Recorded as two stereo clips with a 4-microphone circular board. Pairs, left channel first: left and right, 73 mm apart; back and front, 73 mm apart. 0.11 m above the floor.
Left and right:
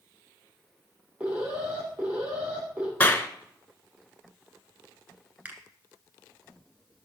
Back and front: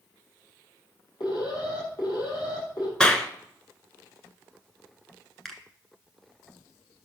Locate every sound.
1.2 s an alarm: 160° right, 3.5 m
3.0 s a clap: 115° left, 0.9 m
5.5 s a finger snap: 100° right, 1.4 m